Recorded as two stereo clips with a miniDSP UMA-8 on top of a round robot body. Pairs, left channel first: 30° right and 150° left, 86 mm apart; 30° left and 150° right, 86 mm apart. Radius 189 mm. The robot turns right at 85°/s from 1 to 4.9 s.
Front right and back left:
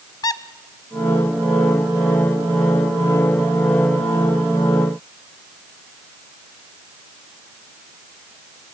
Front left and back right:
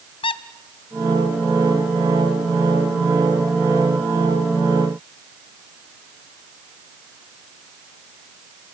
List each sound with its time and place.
0.2 s a squeak: 15° left, 0.5 m